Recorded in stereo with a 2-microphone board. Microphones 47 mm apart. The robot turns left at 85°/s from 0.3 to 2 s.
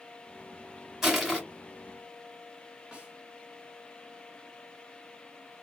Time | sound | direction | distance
1.0 | crushing | 170° right | 1.9 m
2.9 | a snare drum | 20° right (ahead or behind) | 2 m